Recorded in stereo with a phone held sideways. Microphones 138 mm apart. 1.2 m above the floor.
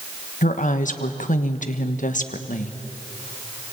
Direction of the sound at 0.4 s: 70° left (ahead or behind).